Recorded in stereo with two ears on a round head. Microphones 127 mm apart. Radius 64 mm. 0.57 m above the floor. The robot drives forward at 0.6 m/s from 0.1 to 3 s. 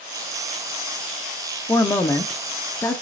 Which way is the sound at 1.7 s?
15° left (ahead or behind).